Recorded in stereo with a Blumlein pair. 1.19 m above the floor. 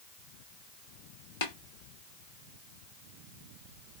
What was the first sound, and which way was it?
Tapping, 55° left.